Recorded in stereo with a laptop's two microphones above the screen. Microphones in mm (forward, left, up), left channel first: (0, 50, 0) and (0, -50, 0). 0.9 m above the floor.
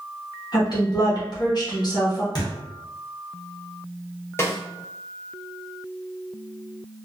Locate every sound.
0.5 s a woman speaking: 45° left (ahead or behind), 0.8 m
2.4 s a thud: 40° left (ahead or behind), 0.7 m
4.4 s a snare drum: 25° left (ahead or behind), 0.6 m